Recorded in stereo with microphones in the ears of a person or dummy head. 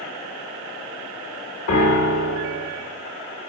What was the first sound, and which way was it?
A piano, 80° left.